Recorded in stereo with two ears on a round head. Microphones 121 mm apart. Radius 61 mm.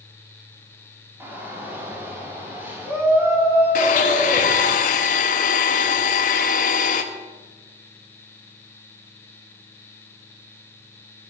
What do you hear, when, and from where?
1.2 s a shout: 15° right (ahead or behind), 2.5 m; by 4.8 s 20° right (ahead or behind), 4.5 m
3.8 s a blender: 60° left (ahead or behind), 1.0 m